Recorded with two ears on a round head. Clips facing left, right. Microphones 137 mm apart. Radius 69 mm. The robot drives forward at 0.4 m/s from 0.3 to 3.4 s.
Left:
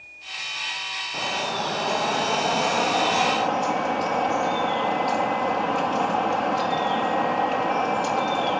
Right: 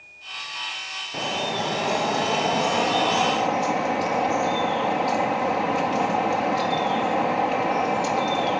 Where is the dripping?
15° right (ahead or behind); by 8.6 s 5° right (ahead or behind).